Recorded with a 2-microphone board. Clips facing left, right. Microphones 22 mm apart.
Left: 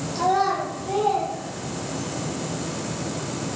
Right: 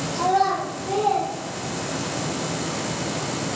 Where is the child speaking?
20° left (ahead or behind), 0.7 m; by 2.2 s 60° right (ahead or behind), 1.3 m.